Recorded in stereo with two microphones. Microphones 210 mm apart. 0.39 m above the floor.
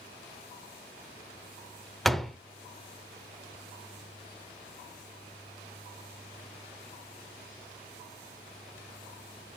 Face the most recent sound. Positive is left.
turn(degrees=0)  # may be behind; listen again after turning